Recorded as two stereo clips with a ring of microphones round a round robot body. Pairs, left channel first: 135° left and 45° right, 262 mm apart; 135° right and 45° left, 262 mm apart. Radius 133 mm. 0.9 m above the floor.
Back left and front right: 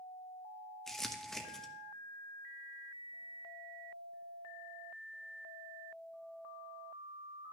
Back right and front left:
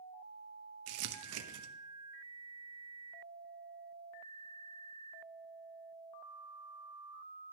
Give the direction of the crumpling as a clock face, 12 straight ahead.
10 o'clock.